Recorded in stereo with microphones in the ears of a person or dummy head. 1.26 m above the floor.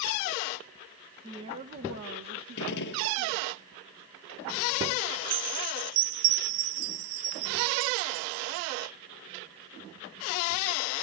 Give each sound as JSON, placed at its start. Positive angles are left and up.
{"t": 1.2, "sound": "a woman speaking", "side_deg": -20, "distance_m": 1.2}
{"t": 2.6, "sound": "a gunshot", "side_deg": 70, "distance_m": 1.3}
{"t": 5.3, "sound": "a chime", "side_deg": -60, "distance_m": 0.9}